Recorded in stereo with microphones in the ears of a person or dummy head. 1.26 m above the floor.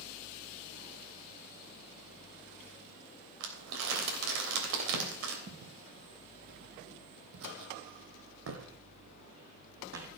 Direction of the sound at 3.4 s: 65° right (ahead or behind).